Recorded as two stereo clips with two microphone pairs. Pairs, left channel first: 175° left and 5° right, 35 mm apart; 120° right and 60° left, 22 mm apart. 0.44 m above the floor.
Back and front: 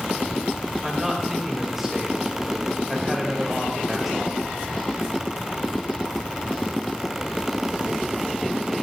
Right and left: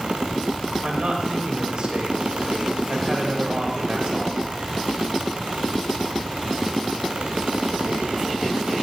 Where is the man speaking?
80° left, 1.9 m.